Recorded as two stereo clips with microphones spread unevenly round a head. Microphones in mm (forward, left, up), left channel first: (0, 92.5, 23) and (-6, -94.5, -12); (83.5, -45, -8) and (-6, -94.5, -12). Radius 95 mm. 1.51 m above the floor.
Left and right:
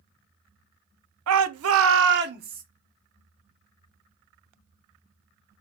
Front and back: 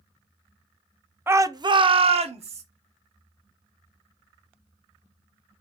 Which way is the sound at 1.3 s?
80° right.